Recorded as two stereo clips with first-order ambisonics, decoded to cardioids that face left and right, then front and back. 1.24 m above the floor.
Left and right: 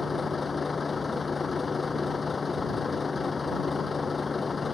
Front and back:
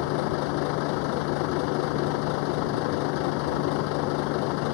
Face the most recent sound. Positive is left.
turn(degrees=15)